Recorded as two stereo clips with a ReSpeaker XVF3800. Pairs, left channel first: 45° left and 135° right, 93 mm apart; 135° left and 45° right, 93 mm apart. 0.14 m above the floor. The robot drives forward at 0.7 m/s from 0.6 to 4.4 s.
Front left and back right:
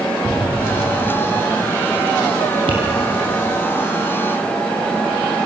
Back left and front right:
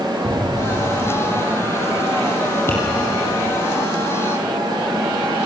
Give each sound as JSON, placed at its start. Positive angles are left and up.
{"t": 0.2, "sound": "an explosion", "azimuth_deg": -75, "distance_m": 4.5}
{"t": 2.7, "sound": "tapping", "azimuth_deg": -160, "distance_m": 5.0}